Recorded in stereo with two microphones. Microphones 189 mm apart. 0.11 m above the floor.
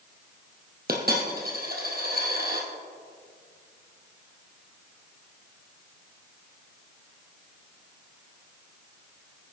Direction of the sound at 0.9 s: 55° right (ahead or behind).